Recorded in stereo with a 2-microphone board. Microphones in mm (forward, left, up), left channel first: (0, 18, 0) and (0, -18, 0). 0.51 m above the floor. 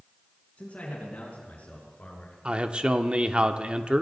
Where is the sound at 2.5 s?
30° right (ahead or behind), 0.8 m.